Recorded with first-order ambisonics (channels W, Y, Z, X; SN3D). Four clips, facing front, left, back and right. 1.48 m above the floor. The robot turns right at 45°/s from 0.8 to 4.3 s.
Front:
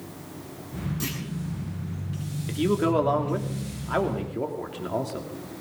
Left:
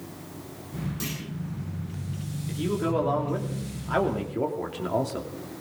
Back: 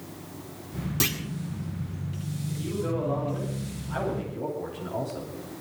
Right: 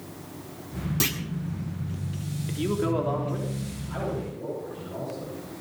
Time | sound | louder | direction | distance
1.0 | a clunk | right 10 dB, back 8 dB | 140° right | 2 m
2.5 | a man speaking | even, front 8 dB | 20° right | 3 m